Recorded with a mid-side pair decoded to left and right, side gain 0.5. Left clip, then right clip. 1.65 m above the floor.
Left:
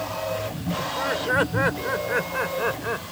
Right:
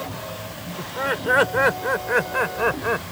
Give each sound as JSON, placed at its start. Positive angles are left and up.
{"t": 0.8, "sound": "laughter", "azimuth_deg": -20}